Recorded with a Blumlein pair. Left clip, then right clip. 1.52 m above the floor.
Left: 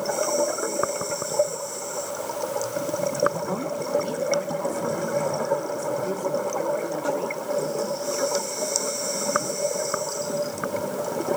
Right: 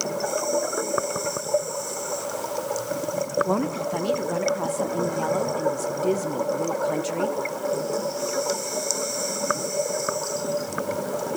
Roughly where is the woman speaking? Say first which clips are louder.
Right 2 dB; ahead.